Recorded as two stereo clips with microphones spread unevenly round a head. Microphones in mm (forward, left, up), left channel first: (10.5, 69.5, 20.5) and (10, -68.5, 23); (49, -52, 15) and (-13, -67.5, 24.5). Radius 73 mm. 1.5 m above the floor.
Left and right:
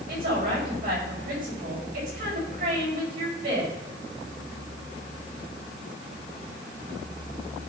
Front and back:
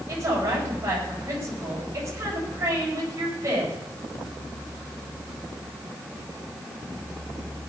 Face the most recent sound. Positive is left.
turn(degrees=-125)